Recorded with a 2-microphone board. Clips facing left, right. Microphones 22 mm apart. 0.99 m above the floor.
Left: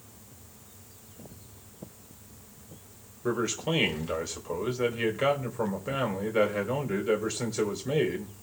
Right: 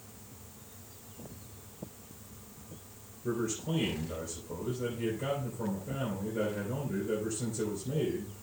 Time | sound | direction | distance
3.2 | a man speaking | 80° left | 3.5 m